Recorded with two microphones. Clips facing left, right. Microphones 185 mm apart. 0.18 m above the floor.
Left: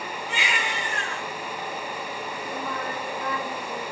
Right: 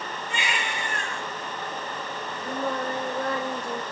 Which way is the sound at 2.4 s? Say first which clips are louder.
Right 5 dB; 75° right (ahead or behind).